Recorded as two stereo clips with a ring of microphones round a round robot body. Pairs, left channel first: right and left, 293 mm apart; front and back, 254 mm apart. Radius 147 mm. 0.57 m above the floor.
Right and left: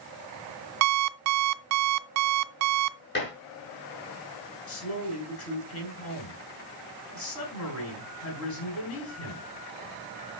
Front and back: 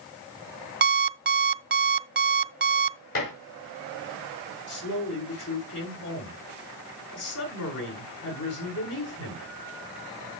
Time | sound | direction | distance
0.8 | an alarm clock | 125° left | 0.7 m
3.1 | dishes clattering | 35° right | 4 m
4.7 | a woman speaking | 45° right | 7 m